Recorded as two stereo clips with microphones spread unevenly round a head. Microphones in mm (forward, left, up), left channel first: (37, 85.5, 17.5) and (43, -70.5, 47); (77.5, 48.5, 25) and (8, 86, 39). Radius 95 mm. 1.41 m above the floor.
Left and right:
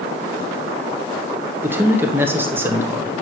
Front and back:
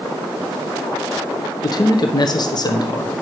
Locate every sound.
1.6 s a man speaking: 5° right, 0.9 m